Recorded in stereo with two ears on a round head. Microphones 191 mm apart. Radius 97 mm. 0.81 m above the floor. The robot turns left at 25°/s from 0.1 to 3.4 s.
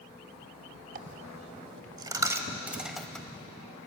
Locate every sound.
0.9 s a dropped coin: 40° right (ahead or behind), 0.8 m; by 3.5 s 10° left (ahead or behind), 0.8 m